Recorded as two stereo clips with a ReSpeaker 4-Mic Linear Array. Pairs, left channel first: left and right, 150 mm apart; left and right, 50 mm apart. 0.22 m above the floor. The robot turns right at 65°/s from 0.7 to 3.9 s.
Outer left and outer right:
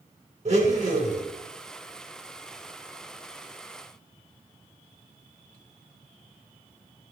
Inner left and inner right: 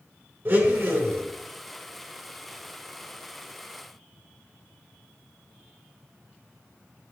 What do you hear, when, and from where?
0.5 s a blender: 120° right, 2 m; by 1.2 s 85° right, 2 m